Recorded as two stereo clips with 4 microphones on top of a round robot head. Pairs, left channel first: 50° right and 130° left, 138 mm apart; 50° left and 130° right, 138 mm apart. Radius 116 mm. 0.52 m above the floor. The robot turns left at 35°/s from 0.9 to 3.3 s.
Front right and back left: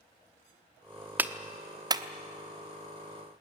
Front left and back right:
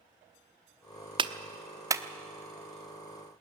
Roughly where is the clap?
Behind.